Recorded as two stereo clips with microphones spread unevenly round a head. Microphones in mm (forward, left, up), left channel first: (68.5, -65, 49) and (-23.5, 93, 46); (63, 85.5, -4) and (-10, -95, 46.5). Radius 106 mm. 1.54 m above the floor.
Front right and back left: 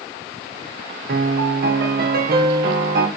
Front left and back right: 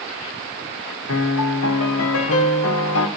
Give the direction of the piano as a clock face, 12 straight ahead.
9 o'clock.